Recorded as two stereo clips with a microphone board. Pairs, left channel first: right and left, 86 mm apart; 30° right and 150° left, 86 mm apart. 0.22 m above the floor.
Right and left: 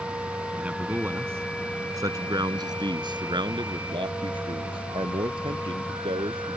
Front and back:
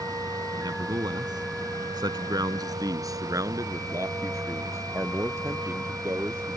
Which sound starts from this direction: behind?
A man speaking, at 0.6 s.